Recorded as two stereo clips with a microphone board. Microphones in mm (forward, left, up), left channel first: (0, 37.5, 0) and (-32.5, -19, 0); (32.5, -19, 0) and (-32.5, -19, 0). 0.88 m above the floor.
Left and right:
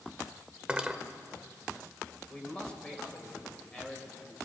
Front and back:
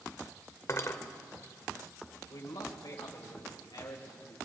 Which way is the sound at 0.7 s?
45° right.